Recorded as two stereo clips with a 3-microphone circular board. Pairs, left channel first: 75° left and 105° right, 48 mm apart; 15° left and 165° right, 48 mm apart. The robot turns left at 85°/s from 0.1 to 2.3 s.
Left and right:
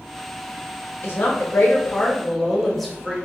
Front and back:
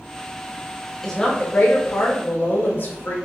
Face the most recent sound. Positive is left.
turn(degrees=-10)